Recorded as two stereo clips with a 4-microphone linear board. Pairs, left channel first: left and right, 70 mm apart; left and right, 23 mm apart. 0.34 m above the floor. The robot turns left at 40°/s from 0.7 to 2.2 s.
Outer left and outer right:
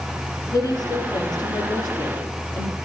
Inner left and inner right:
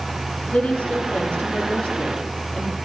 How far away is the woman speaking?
About 6 m.